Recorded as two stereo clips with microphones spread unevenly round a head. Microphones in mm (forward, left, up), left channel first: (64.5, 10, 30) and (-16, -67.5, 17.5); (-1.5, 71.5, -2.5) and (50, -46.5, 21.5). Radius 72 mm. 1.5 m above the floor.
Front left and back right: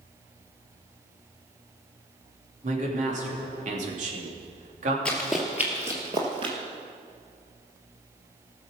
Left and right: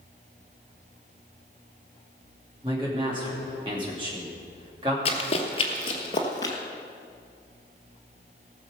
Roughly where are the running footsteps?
Left.